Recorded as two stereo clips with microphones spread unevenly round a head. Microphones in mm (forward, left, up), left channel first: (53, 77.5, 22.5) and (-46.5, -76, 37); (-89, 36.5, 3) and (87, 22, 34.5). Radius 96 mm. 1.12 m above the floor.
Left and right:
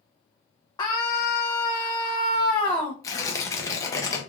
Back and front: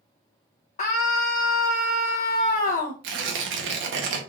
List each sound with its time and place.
0.8 s a scream: 130° left, 0.8 m
3.0 s tearing paper: 10° right, 0.9 m